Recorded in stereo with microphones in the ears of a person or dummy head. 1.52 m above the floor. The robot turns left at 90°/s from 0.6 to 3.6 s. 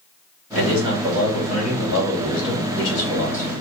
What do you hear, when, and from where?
0.6 s a man speaking: 120° right, 1.5 m; by 3.5 s 20° right, 1.5 m